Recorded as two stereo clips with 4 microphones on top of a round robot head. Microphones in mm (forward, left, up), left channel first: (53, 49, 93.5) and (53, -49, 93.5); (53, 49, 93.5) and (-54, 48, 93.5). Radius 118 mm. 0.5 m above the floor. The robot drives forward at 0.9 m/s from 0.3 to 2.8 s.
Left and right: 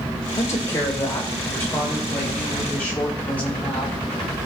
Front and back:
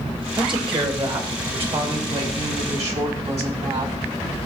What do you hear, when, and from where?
0.4 s a woman speaking: 145° left, 2 m; by 4.0 s 165° left, 4 m